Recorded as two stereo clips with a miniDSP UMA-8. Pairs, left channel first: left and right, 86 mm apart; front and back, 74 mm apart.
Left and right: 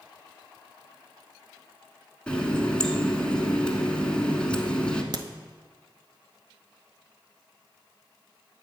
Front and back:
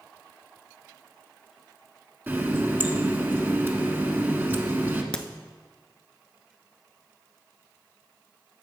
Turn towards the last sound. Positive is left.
turn(degrees=-75)